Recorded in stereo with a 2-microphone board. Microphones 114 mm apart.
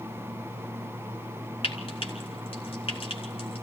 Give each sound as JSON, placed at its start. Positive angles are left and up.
{"t": 1.6, "sound": "frying", "side_deg": 55, "distance_m": 3.5}